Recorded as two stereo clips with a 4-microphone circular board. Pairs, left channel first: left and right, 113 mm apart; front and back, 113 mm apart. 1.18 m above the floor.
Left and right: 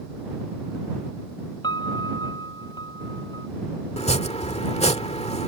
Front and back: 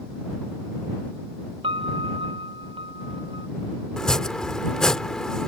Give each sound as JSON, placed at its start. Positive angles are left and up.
{"t": 1.6, "sound": "a piano", "azimuth_deg": 140}
{"t": 4.0, "sound": "chopping", "azimuth_deg": 80}